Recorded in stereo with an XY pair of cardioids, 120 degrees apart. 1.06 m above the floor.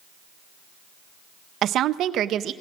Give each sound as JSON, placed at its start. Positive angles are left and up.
{"t": 1.6, "sound": "a woman speaking", "azimuth_deg": -65, "distance_m": 0.5}